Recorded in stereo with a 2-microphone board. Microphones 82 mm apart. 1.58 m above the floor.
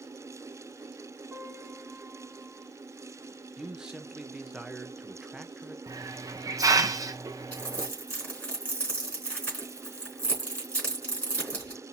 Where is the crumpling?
15° left (ahead or behind), 4 m.